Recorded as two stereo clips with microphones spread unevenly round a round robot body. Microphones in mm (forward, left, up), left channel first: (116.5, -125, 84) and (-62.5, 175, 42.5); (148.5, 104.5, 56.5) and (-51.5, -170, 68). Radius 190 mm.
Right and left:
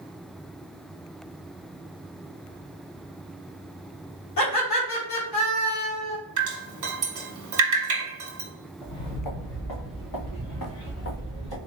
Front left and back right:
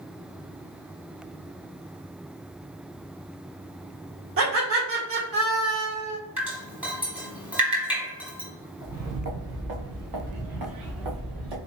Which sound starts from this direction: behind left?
Dripping, at 6.4 s.